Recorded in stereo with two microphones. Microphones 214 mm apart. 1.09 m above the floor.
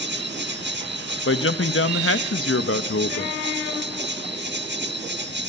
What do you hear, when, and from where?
0.0 s an insect: 55° right (ahead or behind), 1.0 m
1.2 s a man speaking: 75° left (ahead or behind), 0.9 m